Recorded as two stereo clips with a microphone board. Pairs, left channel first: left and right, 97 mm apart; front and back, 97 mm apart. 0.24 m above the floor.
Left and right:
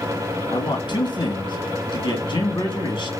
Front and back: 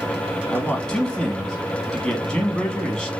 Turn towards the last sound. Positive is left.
turn(degrees=85)